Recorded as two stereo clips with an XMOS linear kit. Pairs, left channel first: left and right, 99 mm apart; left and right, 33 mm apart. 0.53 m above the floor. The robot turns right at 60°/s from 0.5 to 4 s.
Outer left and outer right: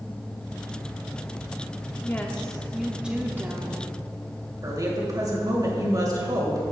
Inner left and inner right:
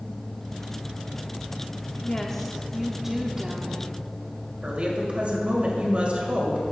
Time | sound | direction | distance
2.0 | a woman speaking | 140° left | 0.9 m
4.6 | a woman speaking | 40° right (ahead or behind) | 3 m